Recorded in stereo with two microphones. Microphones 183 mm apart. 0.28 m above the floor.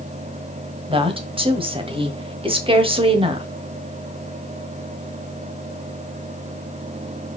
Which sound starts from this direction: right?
A woman speaking, at 0.9 s.